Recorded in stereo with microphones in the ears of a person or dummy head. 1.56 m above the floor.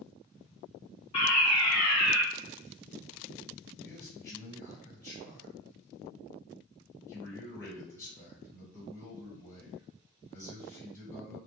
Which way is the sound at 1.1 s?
25° left (ahead or behind).